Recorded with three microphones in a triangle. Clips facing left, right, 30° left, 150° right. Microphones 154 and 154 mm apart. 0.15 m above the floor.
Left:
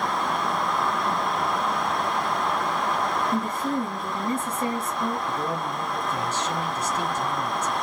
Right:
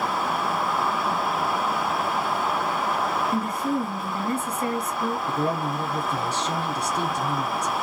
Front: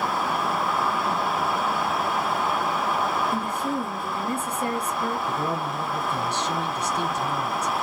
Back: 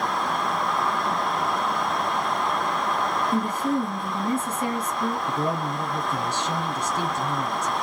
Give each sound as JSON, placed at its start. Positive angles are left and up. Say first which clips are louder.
{"t": 3.3, "sound": "a woman speaking", "louder": "right 1 dB, back 3 dB", "azimuth_deg": 135, "distance_m": 2.0}
{"t": 5.3, "sound": "a man speaking", "louder": "right 3 dB, back 1 dB", "azimuth_deg": -85, "distance_m": 1.5}